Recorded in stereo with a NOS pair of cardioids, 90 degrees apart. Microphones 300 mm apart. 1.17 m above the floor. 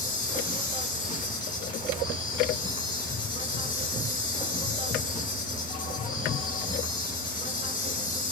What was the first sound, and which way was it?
An insect, 25° left.